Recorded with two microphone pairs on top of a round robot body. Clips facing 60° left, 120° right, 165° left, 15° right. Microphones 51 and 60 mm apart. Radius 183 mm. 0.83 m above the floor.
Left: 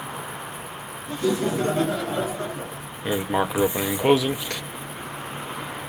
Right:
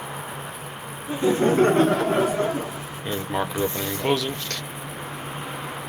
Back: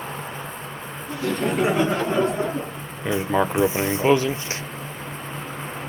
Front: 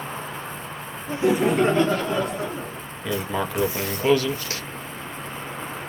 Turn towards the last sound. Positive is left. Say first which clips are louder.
# left 3 dB, back 5 dB
turn(degrees=135)